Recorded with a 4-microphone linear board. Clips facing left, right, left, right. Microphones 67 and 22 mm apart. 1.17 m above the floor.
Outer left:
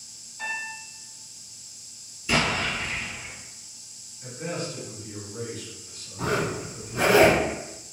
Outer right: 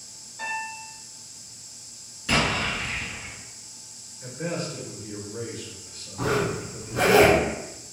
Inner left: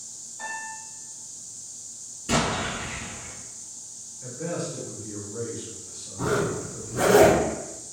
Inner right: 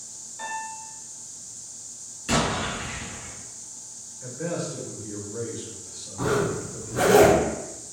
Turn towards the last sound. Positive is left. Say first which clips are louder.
# outer right 2 dB, inner right 1 dB
turn(degrees=-80)